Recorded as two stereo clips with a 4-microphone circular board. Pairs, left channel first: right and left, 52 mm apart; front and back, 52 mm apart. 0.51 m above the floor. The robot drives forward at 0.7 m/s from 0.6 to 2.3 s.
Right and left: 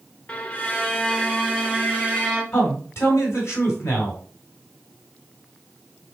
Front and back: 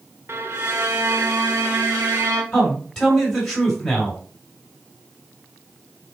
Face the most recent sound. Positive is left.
turn(degrees=-80)